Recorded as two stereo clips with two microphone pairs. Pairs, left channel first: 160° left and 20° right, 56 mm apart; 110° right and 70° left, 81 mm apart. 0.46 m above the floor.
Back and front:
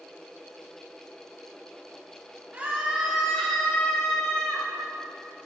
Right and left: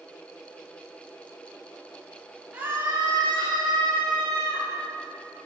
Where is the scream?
10° left, 0.9 m; by 4.7 s 90° left, 2.5 m.